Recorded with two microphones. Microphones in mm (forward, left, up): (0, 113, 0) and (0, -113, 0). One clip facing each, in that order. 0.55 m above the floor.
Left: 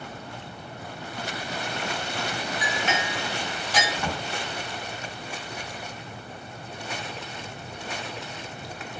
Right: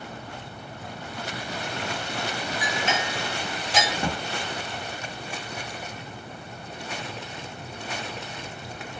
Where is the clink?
25° right (ahead or behind), 1.3 m.